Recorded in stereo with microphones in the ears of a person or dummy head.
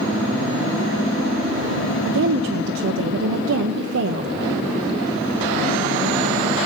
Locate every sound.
2.0 s a woman speaking: 55° right (ahead or behind), 0.7 m